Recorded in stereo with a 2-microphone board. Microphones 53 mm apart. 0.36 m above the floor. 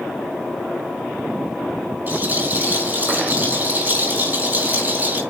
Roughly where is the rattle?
Right.